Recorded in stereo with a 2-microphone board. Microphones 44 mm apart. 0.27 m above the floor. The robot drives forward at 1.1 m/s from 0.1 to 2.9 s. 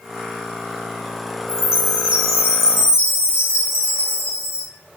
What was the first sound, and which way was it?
A chime, 70° left (ahead or behind).